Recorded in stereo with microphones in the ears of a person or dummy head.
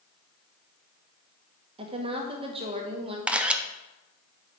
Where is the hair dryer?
I don't hear a hair dryer.